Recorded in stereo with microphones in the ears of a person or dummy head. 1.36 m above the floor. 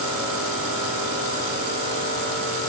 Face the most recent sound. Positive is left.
No sound to turn to.